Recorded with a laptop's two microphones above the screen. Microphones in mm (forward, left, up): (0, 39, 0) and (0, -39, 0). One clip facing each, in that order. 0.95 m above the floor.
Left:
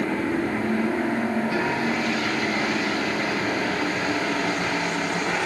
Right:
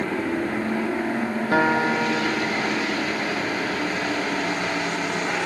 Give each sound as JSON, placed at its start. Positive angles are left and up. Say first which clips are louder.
{"t": 1.5, "sound": "a guitar", "louder": "right 4 dB", "side_deg": -55, "distance_m": 1.6}